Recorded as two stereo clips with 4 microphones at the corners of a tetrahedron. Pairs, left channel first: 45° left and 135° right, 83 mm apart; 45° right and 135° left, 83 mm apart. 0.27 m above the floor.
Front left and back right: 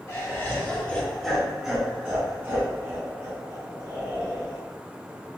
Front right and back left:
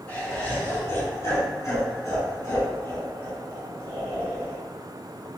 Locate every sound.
0.1 s laughter: 15° left, 1.4 m; by 4.6 s 95° right, 2.5 m